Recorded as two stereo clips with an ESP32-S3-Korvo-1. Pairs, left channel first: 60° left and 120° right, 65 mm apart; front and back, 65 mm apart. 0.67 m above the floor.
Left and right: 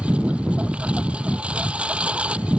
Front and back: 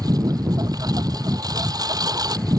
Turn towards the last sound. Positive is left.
turn(degrees=170)